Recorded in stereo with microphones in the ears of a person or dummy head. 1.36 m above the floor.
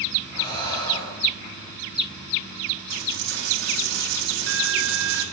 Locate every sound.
0.3 s breathing: 20° left (ahead or behind), 3 m
2.9 s a dropped coin: 70° right (ahead or behind), 1.9 m